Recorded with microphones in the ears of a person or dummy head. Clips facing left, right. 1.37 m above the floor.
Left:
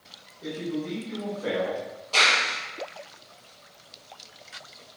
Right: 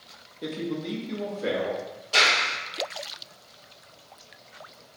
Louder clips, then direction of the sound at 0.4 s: Even; 65° right (ahead or behind).